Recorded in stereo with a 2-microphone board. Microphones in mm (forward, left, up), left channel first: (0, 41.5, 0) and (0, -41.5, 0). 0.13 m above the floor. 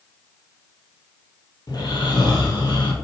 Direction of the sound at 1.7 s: 55° left (ahead or behind).